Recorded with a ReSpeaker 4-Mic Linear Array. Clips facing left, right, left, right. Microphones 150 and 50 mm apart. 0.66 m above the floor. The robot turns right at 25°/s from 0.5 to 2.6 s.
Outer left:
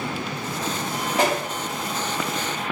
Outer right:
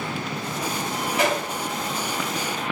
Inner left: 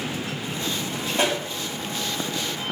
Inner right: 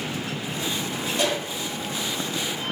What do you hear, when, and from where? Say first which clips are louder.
1.1 s a pop: outer left 1 dB, inner left 2 dB; 35° left (ahead or behind), 1.7 m; by 1.4 s 40° left (ahead or behind), 1.7 m